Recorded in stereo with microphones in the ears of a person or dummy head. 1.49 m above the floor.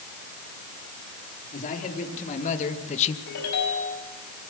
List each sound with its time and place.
1.5 s a man speaking: 40° left (ahead or behind), 3.5 m; by 3.2 s 35° left (ahead or behind), 1.4 m
3.3 s a ringtone: 80° left, 5.5 m